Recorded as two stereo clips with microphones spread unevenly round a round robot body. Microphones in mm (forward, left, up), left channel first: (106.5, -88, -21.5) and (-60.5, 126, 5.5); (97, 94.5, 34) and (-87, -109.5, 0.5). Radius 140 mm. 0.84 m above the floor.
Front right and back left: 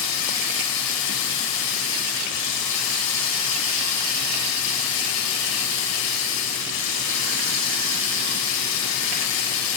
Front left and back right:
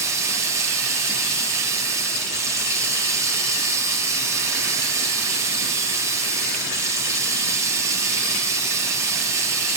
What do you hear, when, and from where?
0.0 s running water: 50° right, 3 m